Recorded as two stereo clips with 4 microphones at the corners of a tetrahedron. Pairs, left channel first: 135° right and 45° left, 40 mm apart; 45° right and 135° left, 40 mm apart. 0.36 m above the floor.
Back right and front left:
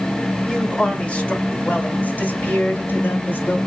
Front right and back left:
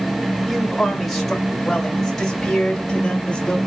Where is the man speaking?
145° right, 1.2 m; by 3.6 s 120° right, 2.5 m.